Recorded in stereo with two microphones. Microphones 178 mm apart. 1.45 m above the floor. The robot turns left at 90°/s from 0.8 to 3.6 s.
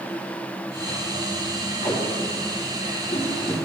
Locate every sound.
1.8 s tape being pulled: 30° left (ahead or behind), 1.3 m; by 3.5 s 5° right (ahead or behind), 1.3 m